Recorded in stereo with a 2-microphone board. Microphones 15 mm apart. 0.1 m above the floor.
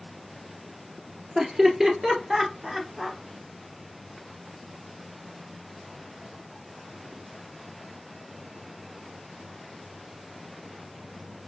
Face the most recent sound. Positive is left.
turn(degrees=-15)  # may be behind; listen again after turning